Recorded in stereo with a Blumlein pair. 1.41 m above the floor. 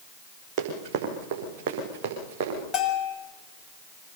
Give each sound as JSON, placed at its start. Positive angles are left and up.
{"t": 0.6, "sound": "running footsteps", "azimuth_deg": -35, "distance_m": 6.0}
{"t": 2.7, "sound": "a bell", "azimuth_deg": 20, "distance_m": 6.5}